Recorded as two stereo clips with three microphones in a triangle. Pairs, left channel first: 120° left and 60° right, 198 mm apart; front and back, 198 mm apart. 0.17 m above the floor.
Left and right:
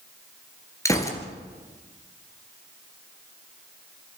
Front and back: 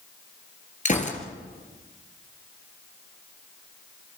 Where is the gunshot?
45° left, 2.5 m.